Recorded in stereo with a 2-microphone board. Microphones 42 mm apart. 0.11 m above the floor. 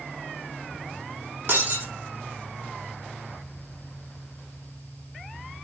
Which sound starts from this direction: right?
Breaking glass, at 1.5 s.